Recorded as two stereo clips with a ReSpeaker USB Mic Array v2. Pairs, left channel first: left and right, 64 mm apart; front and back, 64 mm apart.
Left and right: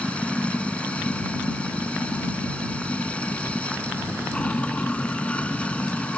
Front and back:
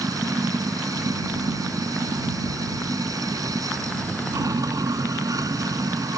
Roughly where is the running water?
Behind.